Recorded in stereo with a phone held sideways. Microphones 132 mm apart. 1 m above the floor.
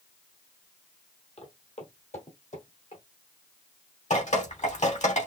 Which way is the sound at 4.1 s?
65° left (ahead or behind).